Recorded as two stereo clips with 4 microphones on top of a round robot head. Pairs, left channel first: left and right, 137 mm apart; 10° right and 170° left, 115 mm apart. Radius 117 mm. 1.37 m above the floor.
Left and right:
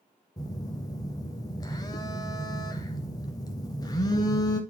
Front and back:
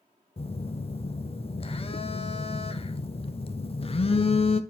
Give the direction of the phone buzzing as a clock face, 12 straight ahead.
11 o'clock.